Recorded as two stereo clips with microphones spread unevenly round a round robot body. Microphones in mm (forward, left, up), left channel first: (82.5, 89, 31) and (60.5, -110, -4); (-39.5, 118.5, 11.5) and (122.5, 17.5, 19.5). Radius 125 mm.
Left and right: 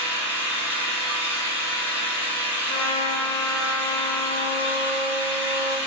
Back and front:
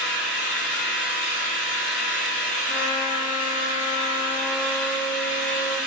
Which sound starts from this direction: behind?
An engine running, at 0.0 s.